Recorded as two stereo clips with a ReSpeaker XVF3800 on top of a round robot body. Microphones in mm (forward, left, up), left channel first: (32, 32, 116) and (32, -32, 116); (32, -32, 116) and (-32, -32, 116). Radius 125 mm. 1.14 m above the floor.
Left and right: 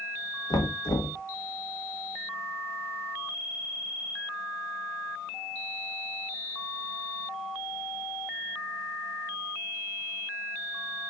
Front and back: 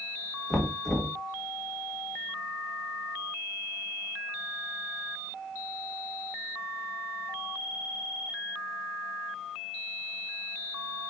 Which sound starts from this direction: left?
Knocking, at 0.5 s.